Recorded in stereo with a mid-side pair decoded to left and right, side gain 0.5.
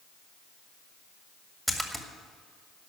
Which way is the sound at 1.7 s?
Straight ahead.